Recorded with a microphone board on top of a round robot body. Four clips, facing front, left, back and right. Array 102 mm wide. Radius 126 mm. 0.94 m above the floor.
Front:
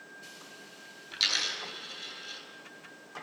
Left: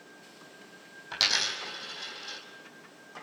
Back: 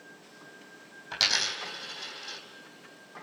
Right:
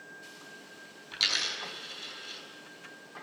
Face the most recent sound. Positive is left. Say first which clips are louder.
# left 4 dB, back 4 dB
turn(degrees=135)